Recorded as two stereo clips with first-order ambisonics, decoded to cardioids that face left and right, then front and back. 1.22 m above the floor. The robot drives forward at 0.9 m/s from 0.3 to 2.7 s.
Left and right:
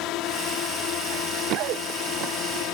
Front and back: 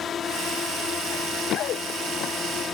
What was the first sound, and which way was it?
A drone, 60° left.